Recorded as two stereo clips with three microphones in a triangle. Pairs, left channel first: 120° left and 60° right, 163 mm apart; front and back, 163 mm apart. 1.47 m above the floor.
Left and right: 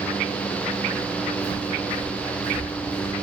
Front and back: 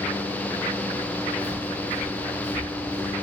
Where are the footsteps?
80° right, 1.6 m; by 3.1 s 110° left, 1.5 m.